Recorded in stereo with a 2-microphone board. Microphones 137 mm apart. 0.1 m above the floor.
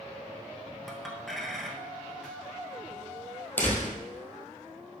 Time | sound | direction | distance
0.9 | a clink | centre (ahead or behind) | 1.1 m
3.6 | a door slam | 10° left (ahead or behind) | 1.9 m